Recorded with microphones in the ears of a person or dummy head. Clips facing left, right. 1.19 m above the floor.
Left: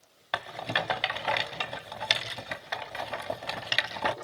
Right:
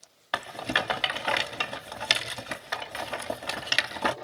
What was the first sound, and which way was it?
A rattle, 5° right (ahead or behind).